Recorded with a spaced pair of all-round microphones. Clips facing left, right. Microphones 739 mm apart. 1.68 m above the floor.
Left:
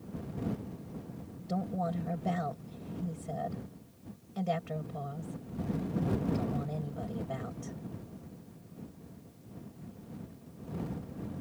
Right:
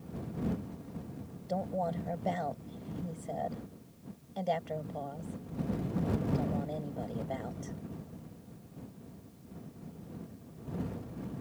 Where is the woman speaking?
40° left (ahead or behind).